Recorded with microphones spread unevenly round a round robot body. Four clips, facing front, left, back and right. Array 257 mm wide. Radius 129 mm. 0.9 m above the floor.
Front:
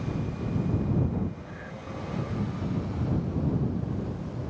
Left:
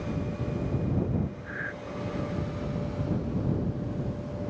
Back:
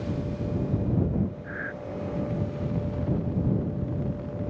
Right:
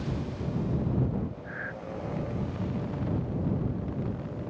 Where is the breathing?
155° left.